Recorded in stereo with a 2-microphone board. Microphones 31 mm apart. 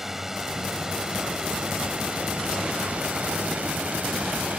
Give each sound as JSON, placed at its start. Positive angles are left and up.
{"t": 0.0, "sound": "a drone", "side_deg": -10}